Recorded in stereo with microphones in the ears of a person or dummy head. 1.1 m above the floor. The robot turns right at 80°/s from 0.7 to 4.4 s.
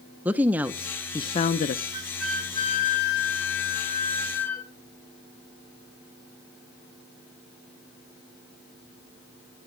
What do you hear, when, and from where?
0.2 s a woman speaking: 15° right, 0.9 m; by 1.8 s 80° left, 0.9 m
1.9 s a flute: 30° right, 4.5 m; by 4.7 s 170° left, 4.5 m